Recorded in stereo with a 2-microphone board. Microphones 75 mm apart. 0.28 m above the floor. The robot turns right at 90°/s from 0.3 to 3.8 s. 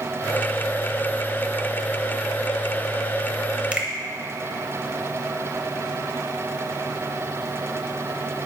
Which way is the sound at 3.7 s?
15° right (ahead or behind).